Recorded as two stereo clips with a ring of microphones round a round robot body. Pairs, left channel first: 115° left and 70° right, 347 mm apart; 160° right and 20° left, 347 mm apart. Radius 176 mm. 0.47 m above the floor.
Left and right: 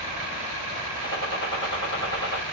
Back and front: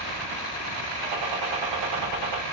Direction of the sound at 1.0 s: 60° left.